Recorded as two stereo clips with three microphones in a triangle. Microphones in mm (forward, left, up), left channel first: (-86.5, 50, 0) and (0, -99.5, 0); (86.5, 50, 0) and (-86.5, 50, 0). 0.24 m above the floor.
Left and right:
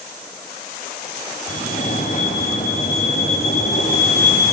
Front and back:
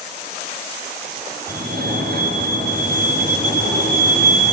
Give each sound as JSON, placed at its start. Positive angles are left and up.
{"t": 1.5, "sound": "a fire alarm", "azimuth_deg": 160, "distance_m": 6.0}